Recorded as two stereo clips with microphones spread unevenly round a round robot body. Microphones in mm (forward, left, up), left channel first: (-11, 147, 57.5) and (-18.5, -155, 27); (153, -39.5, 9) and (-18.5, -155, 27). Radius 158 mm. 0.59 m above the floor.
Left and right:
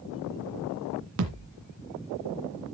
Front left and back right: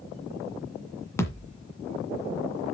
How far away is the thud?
About 1.9 m.